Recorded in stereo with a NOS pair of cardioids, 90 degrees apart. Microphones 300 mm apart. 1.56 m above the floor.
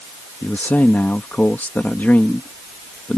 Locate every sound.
0.4 s a man speaking: 5° left